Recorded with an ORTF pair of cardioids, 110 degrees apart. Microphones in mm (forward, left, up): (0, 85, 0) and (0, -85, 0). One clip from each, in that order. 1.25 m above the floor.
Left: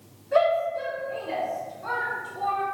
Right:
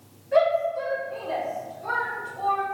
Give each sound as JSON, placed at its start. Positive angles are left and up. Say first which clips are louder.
{"t": 0.3, "sound": "a shout", "louder": "right 1 dB", "azimuth_deg": 20, "distance_m": 1.3}